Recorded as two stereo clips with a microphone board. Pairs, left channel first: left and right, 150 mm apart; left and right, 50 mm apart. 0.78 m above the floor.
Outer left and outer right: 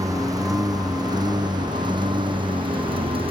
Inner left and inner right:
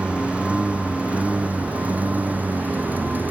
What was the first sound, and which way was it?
A lawn mower, 25° right (ahead or behind).